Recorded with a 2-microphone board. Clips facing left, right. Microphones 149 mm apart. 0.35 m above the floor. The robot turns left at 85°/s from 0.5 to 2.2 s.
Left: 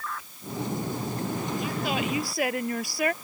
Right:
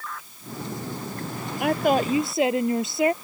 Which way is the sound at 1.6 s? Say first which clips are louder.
Right 13 dB; 105° right.